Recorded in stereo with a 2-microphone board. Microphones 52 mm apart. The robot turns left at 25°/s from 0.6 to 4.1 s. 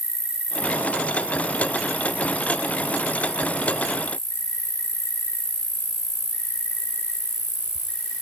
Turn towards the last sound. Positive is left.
turn(degrees=80)